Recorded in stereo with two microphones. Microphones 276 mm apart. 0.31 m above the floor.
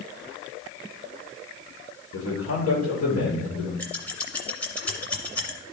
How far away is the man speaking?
About 4.5 m.